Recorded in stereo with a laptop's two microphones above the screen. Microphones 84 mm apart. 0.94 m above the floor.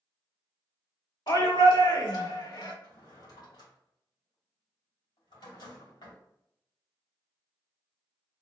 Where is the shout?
70° left (ahead or behind), 1.4 m; by 2.7 s 80° left, 2 m.